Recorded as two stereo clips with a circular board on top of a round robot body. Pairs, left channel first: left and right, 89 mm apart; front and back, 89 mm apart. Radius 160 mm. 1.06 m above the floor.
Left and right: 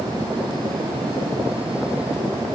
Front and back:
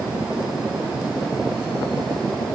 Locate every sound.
Only background noise.